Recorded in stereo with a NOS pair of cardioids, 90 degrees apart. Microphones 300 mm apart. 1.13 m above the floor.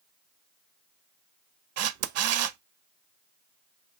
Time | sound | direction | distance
1.8 | a camera shutter | 55° right | 0.5 m